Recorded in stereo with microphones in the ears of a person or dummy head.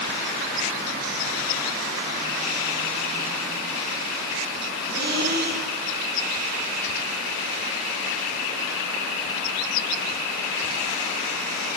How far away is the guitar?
I don't hear a guitar.